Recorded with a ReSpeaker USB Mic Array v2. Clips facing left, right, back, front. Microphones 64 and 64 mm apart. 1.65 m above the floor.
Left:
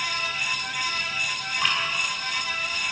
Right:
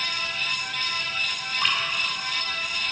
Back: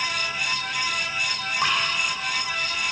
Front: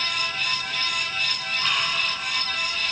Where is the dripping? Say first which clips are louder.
Even, back 3 dB; straight behind, 2 m.